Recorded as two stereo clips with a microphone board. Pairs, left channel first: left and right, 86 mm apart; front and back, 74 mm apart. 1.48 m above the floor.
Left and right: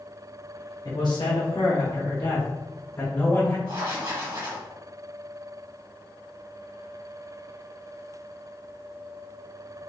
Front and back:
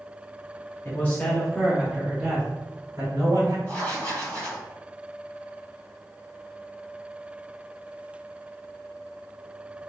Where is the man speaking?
55° left, 0.7 m; by 3.6 s 145° left, 1.3 m.